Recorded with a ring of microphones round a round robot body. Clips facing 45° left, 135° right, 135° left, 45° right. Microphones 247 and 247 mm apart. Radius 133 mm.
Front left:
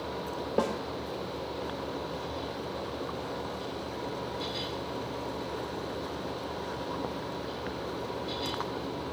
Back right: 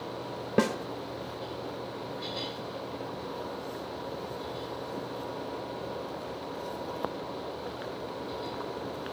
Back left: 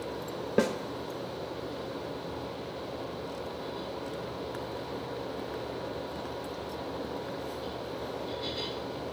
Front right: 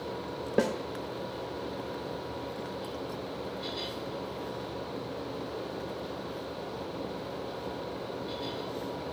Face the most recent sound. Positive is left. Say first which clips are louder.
# back right 3 dB, back left 1 dB
turn(degrees=-145)